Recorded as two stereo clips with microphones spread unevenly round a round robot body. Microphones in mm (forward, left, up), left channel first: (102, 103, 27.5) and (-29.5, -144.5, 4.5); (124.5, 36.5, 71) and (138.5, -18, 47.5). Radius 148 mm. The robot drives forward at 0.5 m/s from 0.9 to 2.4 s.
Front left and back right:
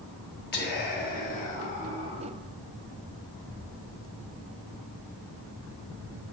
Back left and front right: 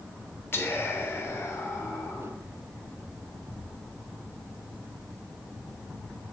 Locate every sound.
0.5 s whispering: 50° left, 1.1 m; by 2.3 s 130° left, 1.1 m